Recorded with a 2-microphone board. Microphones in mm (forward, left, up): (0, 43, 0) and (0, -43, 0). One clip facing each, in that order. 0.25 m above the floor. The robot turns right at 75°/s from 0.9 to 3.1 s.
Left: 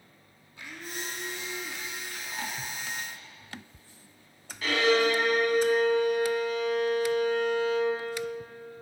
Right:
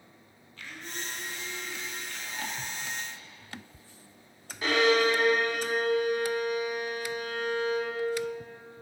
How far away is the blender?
About 1.8 m.